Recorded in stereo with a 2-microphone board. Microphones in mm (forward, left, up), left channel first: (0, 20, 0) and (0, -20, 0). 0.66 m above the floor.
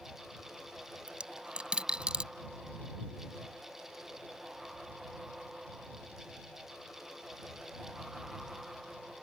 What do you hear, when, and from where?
1.1 s a dropped coin: 25° right (ahead or behind)